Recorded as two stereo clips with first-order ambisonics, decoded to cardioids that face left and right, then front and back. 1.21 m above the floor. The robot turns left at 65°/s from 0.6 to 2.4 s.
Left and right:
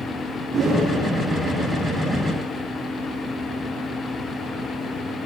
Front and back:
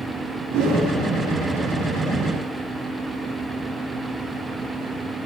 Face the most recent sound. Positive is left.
turn(degrees=85)